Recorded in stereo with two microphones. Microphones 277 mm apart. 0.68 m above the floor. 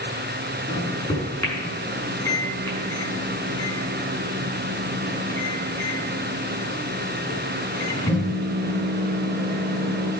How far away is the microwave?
About 5.5 m.